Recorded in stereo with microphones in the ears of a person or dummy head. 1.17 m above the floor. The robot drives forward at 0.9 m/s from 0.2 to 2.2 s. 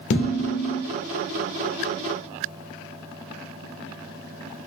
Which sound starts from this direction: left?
Dishes clattering, at 0.1 s.